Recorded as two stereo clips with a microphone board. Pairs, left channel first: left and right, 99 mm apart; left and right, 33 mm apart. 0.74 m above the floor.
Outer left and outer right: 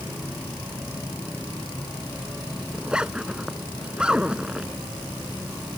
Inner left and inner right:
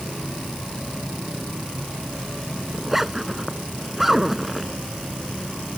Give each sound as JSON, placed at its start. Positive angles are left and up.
{"t": 2.7, "sound": "a zipper", "side_deg": -10}